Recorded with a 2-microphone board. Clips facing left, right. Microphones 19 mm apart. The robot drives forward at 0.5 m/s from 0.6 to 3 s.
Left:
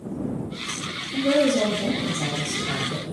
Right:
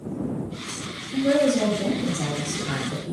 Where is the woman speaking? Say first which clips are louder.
Even; 40° right (ahead or behind), 1.5 m; by 3.1 s 30° right (ahead or behind), 1.8 m.